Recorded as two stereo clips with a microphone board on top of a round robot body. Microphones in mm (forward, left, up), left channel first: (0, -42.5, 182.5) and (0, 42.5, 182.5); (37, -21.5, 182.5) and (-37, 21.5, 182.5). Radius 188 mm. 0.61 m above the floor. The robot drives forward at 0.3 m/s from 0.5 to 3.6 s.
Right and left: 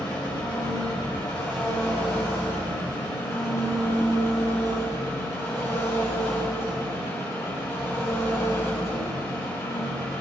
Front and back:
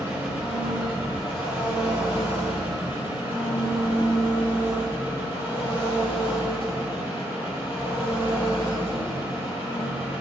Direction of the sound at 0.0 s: 135° right.